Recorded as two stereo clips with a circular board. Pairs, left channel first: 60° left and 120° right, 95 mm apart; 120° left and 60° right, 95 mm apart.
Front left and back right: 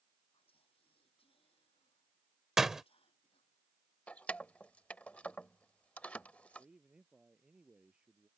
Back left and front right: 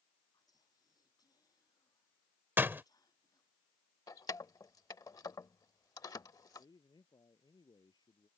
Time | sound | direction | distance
0.3 | whispering | 70° left | ?
2.6 | a door slam | 40° right | ?
4.1 | keys jangling | 130° left | ?
6.6 | a man speaking | 160° left | ?